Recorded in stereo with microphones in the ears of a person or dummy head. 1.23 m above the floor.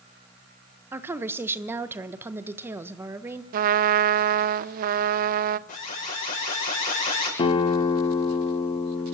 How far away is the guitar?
About 1.1 m.